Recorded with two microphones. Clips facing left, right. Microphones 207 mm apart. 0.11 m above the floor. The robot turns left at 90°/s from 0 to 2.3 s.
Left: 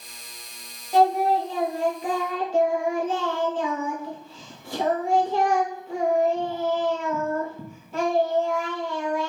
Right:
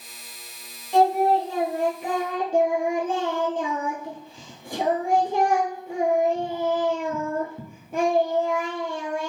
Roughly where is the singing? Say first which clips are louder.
Right 1 dB; ahead.